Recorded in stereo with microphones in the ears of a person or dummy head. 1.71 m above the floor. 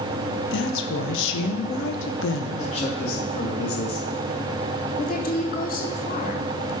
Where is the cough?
No cough in this recording.